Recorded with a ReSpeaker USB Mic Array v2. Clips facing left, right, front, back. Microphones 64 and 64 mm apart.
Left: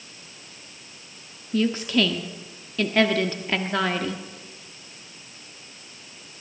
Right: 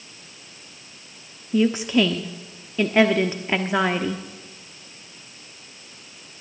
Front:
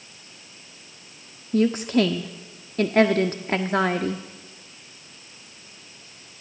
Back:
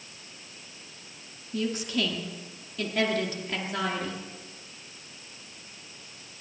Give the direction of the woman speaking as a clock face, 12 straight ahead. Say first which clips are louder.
Right 3 dB, front 9 dB; 1 o'clock.